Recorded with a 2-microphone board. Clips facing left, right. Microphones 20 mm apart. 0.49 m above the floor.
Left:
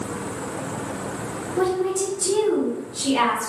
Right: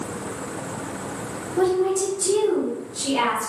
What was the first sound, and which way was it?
A woman speaking, 10° left (ahead or behind).